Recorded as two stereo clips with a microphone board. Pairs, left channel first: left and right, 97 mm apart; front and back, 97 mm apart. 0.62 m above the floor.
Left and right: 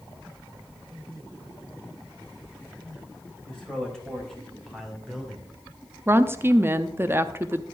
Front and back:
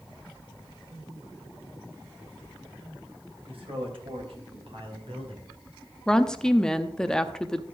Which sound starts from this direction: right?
A woman speaking, at 6.1 s.